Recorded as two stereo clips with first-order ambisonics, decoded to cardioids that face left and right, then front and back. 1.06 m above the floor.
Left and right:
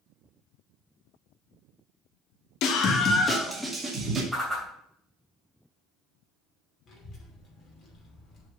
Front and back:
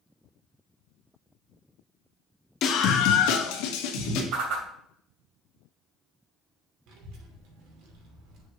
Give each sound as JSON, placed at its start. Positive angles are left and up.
{"t": 2.6, "sound": "a scream", "azimuth_deg": 55, "distance_m": 1.4}
{"t": 4.3, "sound": "a whoosh", "azimuth_deg": -175, "distance_m": 2.5}
{"t": 6.9, "sound": "a child speaking", "azimuth_deg": 155, "distance_m": 2.5}